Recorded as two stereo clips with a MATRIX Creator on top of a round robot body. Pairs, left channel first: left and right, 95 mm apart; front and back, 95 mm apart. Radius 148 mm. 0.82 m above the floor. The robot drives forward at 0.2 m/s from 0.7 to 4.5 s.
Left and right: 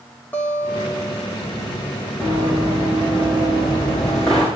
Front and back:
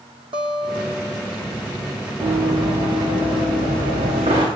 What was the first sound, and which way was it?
A guitar, 160° left.